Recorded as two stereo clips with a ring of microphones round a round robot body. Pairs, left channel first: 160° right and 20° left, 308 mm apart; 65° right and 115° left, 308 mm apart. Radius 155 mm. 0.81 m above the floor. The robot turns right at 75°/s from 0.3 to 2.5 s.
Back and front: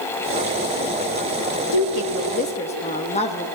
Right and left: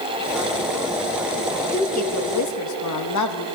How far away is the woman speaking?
About 0.9 m.